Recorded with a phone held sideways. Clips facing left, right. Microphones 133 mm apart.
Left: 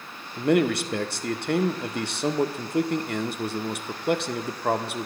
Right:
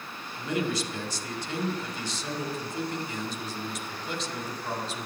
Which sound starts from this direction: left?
A man speaking, at 0.4 s.